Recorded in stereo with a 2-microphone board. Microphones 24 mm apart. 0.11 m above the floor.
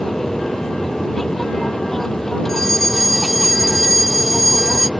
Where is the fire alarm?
10° left (ahead or behind).